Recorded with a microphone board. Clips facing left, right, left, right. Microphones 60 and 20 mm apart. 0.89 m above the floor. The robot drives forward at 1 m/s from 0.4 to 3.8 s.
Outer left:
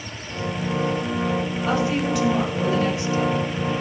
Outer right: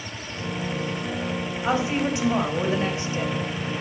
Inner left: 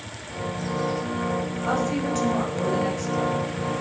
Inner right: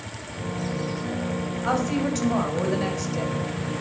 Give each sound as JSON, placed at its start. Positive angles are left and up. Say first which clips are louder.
{"t": 1.6, "sound": "a woman speaking", "louder": "even, inner right 1 dB", "side_deg": -20, "distance_m": 5.0}